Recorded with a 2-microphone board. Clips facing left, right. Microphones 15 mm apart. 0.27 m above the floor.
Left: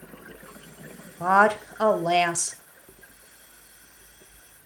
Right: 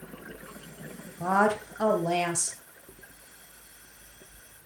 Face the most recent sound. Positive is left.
turn(degrees=40)  # may be behind; listen again after turning